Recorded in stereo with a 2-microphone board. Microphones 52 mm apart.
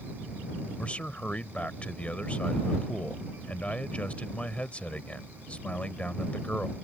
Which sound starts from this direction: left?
A man speaking, at 0.8 s.